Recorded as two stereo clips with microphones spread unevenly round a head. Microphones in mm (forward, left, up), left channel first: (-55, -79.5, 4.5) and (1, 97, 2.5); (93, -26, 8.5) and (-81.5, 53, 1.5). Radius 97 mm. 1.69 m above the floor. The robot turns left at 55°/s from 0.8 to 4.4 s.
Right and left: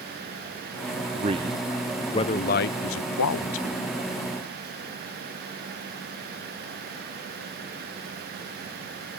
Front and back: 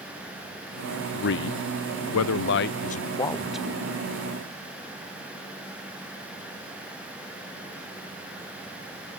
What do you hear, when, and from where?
1.1 s a man speaking: 15° left, 0.6 m; by 3.8 s 125° right, 0.6 m